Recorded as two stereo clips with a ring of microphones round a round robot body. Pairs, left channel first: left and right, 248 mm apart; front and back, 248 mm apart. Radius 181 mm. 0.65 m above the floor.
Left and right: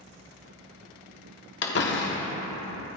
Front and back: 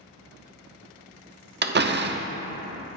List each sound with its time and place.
1.6 s a door slam: 135° left, 1.0 m